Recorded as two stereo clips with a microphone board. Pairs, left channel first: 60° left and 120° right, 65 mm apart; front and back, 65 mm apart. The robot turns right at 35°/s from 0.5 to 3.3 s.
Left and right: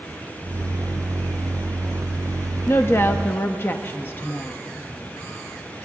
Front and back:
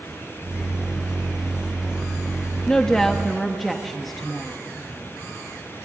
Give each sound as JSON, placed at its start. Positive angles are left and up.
{"t": 2.7, "sound": "a woman speaking", "azimuth_deg": 65, "distance_m": 0.6}